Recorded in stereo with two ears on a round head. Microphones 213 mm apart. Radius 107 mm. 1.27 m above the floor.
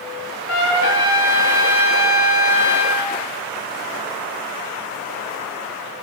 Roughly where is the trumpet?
Left.